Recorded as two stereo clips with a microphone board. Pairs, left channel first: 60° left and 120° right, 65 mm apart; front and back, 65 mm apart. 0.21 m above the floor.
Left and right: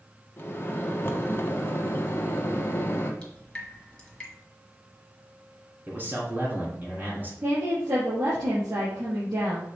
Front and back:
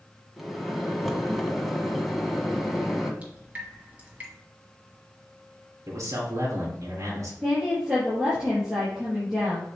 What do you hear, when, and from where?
0.4 s a microwave: 90° left, 1.2 m
3.2 s dripping: 125° left, 1.8 m
5.9 s a man speaking: 175° right, 2.5 m
7.4 s a woman speaking: 100° right, 4 m